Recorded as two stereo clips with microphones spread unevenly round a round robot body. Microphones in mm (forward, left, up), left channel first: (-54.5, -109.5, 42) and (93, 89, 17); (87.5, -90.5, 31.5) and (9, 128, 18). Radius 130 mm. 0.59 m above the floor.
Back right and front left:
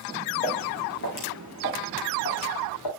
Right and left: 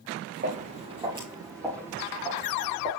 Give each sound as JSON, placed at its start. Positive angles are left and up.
{"t": 0.4, "sound": "footsteps", "azimuth_deg": 170, "distance_m": 3.0}